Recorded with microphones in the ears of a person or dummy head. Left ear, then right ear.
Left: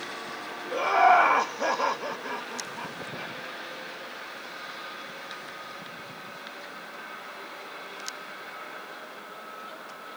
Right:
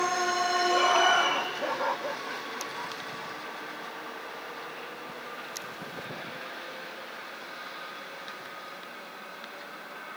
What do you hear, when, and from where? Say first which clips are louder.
0.7 s laughter: left 5 dB; 5° right (ahead or behind), 0.7 m; by 3.3 s 65° left (ahead or behind), 1.7 m